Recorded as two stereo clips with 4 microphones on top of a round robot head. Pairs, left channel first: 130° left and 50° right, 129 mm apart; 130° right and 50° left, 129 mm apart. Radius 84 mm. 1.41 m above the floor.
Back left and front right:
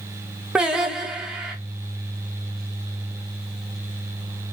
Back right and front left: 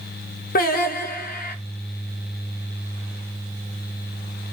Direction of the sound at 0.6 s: 130° right.